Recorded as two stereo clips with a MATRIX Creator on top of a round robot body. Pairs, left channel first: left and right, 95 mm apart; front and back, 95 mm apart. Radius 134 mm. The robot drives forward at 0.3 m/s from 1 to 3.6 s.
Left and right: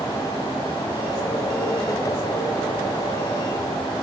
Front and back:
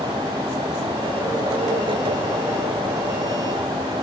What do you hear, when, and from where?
Only background noise.